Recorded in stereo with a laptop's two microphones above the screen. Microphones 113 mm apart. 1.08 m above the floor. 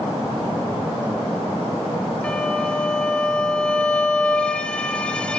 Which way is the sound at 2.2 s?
10° left (ahead or behind).